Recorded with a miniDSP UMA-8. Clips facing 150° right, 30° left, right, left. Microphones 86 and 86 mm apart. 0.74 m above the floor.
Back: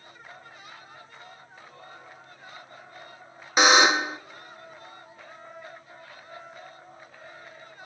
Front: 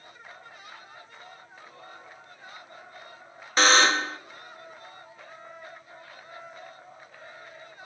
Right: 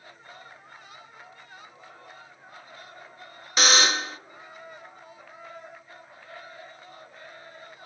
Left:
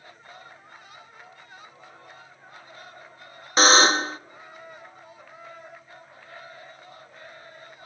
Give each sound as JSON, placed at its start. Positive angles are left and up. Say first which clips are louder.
{"t": 3.6, "sound": "a buzzer", "louder": "back 2 dB, left 6 dB", "azimuth_deg": 135, "distance_m": 0.6}